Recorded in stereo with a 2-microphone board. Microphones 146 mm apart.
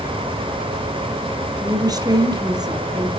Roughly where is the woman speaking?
Right.